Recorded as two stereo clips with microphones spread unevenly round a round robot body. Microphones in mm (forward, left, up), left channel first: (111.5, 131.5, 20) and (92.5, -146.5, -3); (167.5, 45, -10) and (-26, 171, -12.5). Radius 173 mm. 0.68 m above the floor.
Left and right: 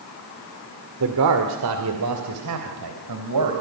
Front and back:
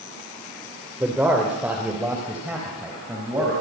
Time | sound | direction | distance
1.0 | a man speaking | 130° right | 2 m